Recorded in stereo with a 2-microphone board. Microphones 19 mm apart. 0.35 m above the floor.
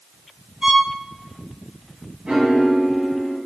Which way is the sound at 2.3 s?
60° right (ahead or behind).